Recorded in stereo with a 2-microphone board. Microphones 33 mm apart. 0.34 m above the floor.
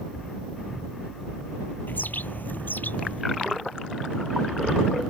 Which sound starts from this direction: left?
A bird, at 1.9 s.